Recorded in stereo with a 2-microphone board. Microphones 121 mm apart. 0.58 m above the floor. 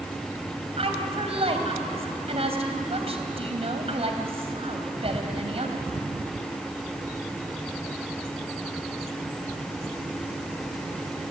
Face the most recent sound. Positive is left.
turn(degrees=-55)  # may be behind; listen again after turning